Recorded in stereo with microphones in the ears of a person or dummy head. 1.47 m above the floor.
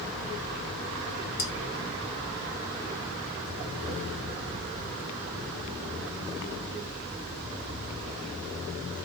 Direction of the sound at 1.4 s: 30° left (ahead or behind).